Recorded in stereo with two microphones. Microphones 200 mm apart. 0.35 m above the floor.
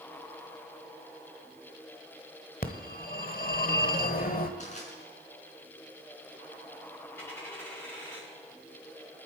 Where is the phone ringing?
45° left (ahead or behind), 1.2 m.